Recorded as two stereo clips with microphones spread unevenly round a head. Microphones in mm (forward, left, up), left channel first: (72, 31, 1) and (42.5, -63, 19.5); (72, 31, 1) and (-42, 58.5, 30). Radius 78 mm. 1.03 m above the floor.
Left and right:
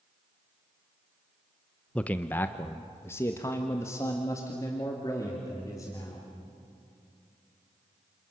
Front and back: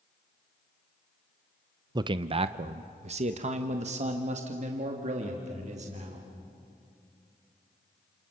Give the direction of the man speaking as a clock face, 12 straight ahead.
8 o'clock.